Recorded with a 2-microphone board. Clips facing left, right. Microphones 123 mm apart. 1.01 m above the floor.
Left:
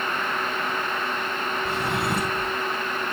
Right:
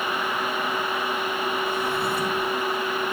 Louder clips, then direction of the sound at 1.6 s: Even; 85° left.